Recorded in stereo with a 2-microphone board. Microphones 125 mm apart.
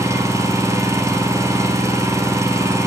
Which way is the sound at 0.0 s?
25° right (ahead or behind).